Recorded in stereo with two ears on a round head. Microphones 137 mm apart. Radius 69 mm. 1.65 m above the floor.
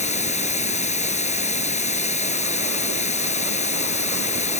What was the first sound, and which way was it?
Running water, 50° left (ahead or behind).